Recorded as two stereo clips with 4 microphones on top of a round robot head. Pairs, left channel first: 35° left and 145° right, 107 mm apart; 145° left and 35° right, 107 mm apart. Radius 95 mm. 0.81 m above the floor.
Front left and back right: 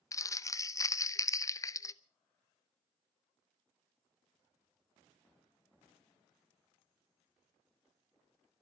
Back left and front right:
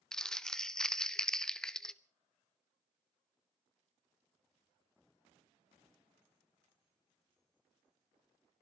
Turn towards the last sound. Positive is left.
turn(degrees=65)